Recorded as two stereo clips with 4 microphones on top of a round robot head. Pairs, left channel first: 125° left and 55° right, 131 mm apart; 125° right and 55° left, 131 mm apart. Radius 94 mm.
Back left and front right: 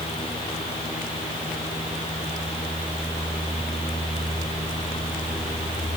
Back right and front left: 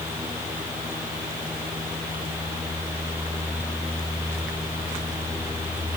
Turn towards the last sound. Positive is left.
No sound to turn to.